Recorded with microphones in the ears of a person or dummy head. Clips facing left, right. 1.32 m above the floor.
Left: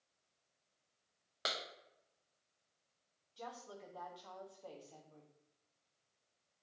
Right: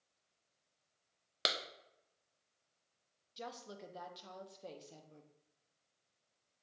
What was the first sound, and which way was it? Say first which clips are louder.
A clap: right 3 dB; 45° right (ahead or behind).